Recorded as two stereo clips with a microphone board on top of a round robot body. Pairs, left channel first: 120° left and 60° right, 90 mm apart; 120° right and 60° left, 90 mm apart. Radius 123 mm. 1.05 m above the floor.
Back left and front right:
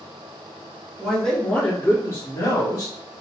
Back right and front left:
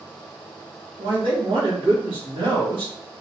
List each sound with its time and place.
1.0 s a man speaking: 30° left, 1.6 m; by 2.9 s 80° left, 1.7 m